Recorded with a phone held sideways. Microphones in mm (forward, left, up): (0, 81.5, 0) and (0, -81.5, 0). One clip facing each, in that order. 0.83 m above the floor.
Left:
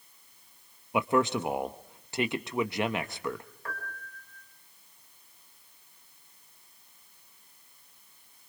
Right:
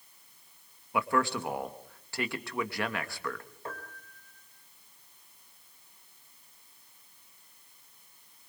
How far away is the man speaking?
About 1.0 m.